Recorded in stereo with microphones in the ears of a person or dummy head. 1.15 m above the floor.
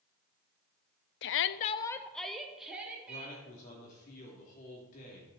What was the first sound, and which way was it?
A shout, 55° left (ahead or behind).